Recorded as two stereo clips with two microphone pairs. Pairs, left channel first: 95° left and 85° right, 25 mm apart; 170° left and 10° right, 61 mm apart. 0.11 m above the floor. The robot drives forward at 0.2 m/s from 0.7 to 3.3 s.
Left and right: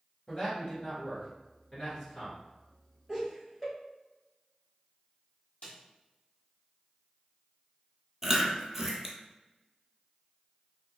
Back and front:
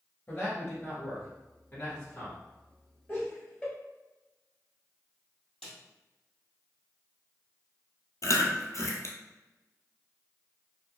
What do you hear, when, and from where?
0.3 s a man speaking: 130° left, 1.3 m; by 2.4 s 145° left, 1.4 m
3.1 s laughter: 170° left, 1.2 m; by 3.7 s 175° left, 1.2 m
5.6 s a snare drum: 90° left, 1.4 m
8.2 s chewing: 160° right, 0.5 m